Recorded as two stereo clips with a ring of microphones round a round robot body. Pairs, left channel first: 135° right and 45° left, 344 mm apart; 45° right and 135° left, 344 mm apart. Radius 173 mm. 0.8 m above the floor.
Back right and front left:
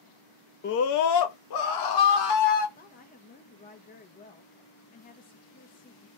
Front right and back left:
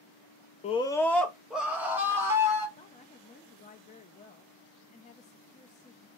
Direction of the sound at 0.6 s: 100° right.